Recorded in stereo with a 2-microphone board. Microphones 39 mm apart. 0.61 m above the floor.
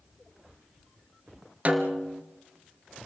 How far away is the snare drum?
About 2.0 m.